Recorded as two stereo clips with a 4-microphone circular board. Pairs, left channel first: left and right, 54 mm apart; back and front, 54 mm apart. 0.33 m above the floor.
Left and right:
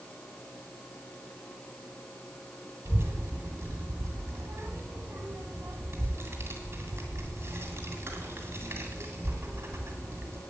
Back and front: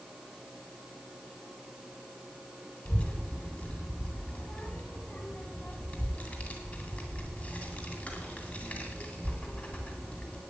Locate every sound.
2.9 s a child speaking: 120° right, 1.9 m